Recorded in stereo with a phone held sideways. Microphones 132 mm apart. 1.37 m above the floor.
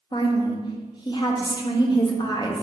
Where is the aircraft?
No aircraft in this recording.